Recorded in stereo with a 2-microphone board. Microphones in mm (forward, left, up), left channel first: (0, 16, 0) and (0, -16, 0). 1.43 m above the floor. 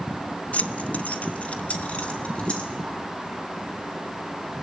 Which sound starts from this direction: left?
Keys jangling, at 0.5 s.